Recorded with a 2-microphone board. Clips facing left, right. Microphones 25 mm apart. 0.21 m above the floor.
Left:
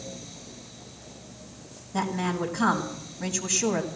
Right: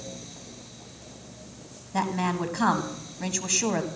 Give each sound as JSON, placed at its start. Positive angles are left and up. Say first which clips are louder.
{"t": 1.9, "sound": "a woman speaking", "louder": "right 1 dB", "side_deg": -20, "distance_m": 1.5}